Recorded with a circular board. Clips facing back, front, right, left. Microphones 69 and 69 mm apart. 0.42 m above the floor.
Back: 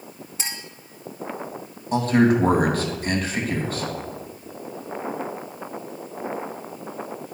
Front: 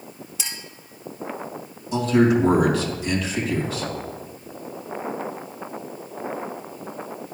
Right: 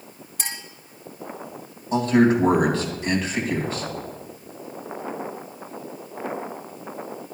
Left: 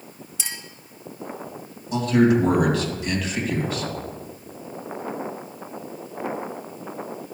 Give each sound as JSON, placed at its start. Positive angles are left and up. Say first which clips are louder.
{"t": 0.4, "sound": "a clink", "louder": "back 3 dB, right 2 dB", "azimuth_deg": -130, "distance_m": 1.6}
{"t": 1.9, "sound": "a man speaking", "louder": "even, even", "azimuth_deg": -140, "distance_m": 2.5}